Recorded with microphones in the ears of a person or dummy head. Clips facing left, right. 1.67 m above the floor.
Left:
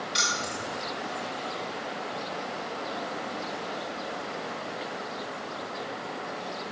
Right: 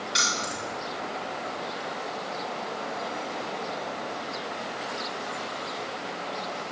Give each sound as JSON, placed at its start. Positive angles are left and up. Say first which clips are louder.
{"t": 0.1, "sound": "keys jangling", "louder": "right 1 dB", "side_deg": 0, "distance_m": 1.6}